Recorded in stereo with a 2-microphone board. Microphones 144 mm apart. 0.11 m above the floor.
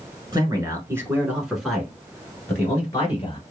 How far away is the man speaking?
About 1.3 m.